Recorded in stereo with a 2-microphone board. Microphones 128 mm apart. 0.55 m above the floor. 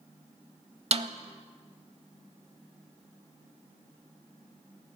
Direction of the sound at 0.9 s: 55° right (ahead or behind).